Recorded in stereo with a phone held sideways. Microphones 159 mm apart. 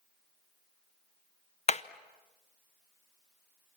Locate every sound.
1.7 s hammering: 45° left (ahead or behind), 0.7 m